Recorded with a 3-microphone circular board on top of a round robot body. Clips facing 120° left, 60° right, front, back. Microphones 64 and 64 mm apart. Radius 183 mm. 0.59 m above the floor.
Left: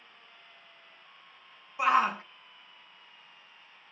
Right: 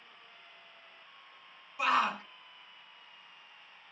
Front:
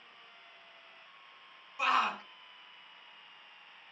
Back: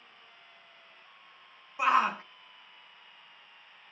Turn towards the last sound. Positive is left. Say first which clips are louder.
# left 4 dB, back 4 dB
turn(degrees=150)